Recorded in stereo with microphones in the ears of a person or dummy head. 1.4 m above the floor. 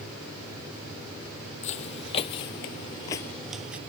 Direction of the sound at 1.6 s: 40° left (ahead or behind).